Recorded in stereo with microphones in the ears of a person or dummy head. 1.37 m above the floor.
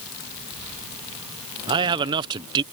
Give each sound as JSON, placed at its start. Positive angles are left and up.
{"t": 1.7, "sound": "a man speaking", "side_deg": -25}